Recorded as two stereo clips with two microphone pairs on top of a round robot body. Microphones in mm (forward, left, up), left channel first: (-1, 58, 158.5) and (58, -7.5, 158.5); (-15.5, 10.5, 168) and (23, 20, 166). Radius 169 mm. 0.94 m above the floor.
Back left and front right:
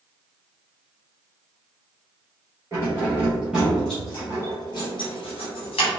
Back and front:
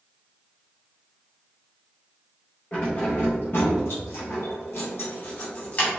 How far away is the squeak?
I don't hear a squeak.